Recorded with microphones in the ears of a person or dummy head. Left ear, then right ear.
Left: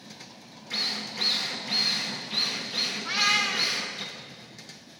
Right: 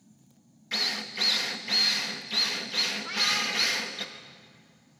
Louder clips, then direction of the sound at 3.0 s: Left 3 dB; 15° left (ahead or behind).